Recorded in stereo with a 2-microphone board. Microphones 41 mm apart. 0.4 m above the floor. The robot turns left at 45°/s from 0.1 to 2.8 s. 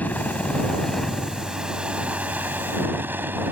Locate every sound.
0.0 s a helicopter: 55° left; by 3.5 s 70° right